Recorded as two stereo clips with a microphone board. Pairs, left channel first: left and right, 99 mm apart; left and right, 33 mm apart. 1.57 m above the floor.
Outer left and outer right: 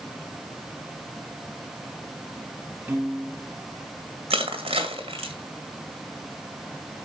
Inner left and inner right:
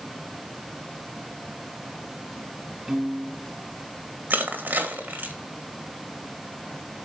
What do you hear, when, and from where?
2.9 s a piano: 20° right (ahead or behind), 1.1 m
4.3 s crushing: 75° right (ahead or behind), 2 m